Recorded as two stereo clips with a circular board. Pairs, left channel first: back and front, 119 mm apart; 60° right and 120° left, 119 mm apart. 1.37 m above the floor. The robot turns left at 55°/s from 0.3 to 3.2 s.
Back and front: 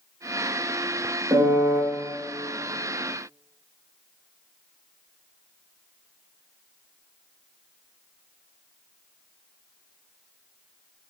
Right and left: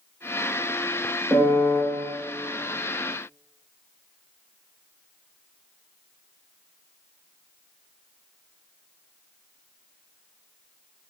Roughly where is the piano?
Ahead left.